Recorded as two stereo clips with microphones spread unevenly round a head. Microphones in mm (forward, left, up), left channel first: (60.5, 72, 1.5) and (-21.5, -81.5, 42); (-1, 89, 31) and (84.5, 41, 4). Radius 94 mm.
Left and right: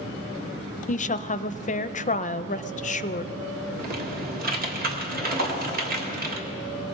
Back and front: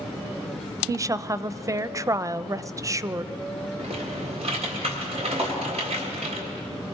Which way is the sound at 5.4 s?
115° right.